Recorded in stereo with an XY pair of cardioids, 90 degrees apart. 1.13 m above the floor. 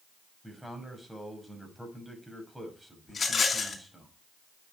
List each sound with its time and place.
0.4 s a man speaking: 5° right, 6 m
3.1 s a rattle: 45° left, 4 m